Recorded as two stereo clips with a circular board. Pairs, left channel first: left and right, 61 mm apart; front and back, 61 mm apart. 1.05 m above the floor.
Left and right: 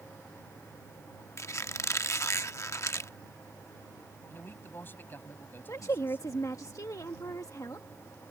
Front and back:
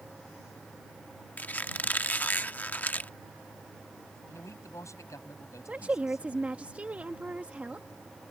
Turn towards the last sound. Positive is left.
turn(degrees=115)